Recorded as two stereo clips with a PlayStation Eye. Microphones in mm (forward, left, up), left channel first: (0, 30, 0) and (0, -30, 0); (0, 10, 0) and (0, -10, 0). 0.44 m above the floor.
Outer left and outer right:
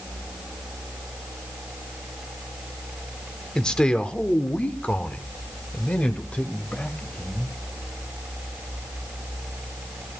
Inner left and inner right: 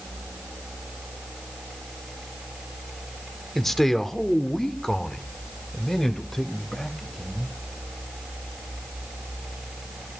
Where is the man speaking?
10° left (ahead or behind), 1.5 m; by 7.5 s 20° left (ahead or behind), 3 m.